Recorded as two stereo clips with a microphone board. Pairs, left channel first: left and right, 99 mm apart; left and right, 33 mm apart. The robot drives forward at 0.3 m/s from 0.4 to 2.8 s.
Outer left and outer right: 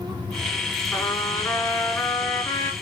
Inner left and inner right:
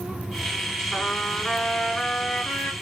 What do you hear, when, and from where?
0.9 s a trumpet: 30° left (ahead or behind), 2.5 m; by 2.7 s 25° left (ahead or behind), 3 m